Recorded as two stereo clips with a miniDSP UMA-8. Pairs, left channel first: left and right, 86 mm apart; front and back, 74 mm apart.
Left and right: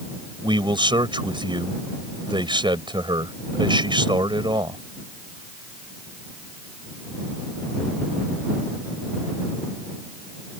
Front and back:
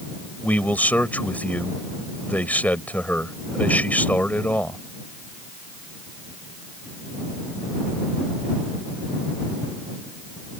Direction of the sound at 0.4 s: 70° right.